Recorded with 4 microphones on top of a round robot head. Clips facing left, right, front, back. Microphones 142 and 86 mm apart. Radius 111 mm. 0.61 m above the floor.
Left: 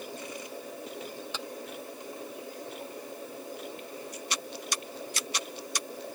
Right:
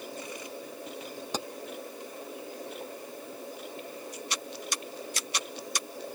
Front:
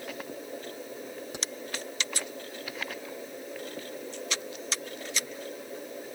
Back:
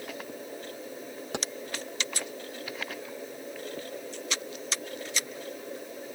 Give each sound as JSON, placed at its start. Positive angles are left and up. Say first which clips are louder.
{"t": 1.3, "sound": "keys jangling", "louder": "right 8 dB, back 8 dB", "azimuth_deg": -140}